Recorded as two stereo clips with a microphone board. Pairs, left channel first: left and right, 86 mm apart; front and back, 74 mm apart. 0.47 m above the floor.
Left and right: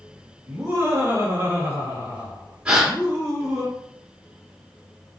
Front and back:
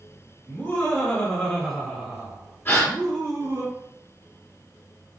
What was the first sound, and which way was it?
Laughter, 50° right.